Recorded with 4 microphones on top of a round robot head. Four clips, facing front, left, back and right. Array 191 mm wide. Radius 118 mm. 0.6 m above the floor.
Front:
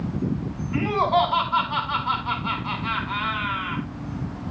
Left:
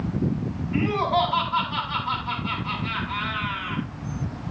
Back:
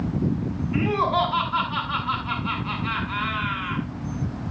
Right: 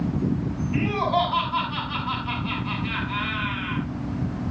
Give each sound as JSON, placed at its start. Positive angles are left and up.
{"t": 0.7, "sound": "laughter", "azimuth_deg": -5, "distance_m": 7.5}